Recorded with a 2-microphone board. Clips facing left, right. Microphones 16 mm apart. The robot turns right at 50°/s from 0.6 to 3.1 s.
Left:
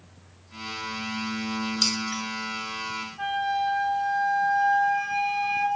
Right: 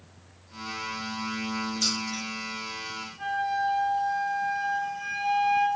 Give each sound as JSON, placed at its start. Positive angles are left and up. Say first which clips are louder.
{"t": 1.8, "sound": "keys jangling", "louder": "left 3 dB", "side_deg": 35, "distance_m": 1.1}
{"t": 3.2, "sound": "a flute", "louder": "left 1 dB", "side_deg": 30, "distance_m": 1.3}